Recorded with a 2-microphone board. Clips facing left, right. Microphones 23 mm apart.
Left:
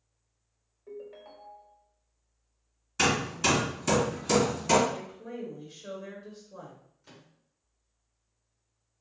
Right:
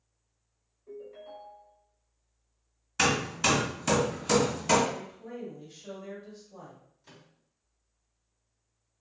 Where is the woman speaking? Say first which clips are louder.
Left 1 dB; 35° left (ahead or behind), 1.5 m.